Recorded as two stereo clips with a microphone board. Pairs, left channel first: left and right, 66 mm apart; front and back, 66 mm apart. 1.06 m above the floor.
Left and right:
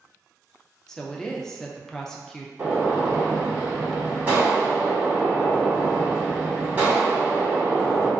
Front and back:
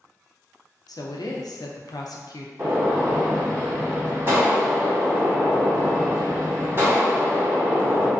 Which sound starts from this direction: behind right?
A gunshot, at 2.6 s.